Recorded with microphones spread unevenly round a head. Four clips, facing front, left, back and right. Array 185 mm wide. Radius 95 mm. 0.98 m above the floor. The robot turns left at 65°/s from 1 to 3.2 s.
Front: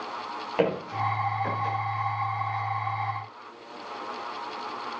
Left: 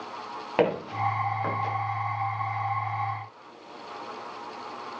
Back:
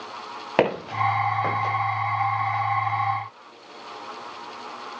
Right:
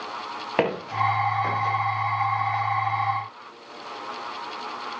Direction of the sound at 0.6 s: 160° right.